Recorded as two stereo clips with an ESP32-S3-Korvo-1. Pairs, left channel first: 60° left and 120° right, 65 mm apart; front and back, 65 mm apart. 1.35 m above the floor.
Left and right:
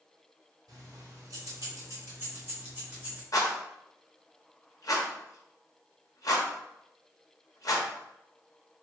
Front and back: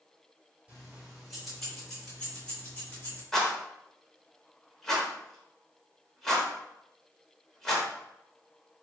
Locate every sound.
0.7 s keys jangling: 105° right, 1.7 m; by 3.2 s 55° right, 1.7 m
3.3 s a rattle: 85° left, 1.0 m